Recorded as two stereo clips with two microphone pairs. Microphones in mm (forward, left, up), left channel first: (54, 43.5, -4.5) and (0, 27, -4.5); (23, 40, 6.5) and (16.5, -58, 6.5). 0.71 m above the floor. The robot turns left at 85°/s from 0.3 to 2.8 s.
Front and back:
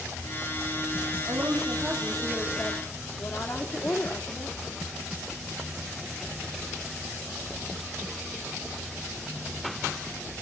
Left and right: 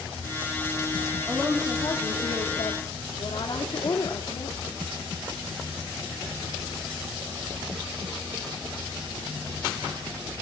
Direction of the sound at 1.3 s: 170° right.